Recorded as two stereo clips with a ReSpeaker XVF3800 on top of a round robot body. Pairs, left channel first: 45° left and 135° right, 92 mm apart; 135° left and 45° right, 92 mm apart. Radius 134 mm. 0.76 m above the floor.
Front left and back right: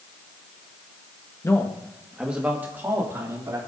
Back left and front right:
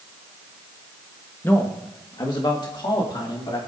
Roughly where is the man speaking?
Left.